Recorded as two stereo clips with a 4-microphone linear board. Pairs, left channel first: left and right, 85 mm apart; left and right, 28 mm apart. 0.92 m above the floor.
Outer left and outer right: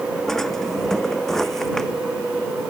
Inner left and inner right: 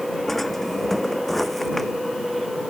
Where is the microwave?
I don't hear a microwave.